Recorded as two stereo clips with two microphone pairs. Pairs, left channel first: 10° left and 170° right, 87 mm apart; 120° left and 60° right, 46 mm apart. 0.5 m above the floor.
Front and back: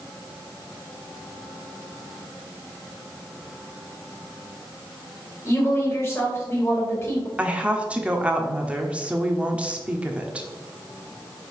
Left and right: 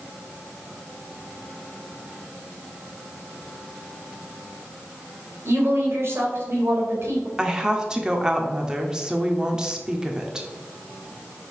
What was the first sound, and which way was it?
A woman speaking, 45° right.